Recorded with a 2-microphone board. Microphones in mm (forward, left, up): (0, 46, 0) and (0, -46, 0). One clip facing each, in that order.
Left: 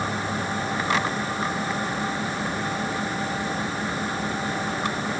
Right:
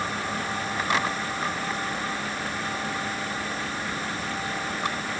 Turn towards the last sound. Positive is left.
No sound to turn to.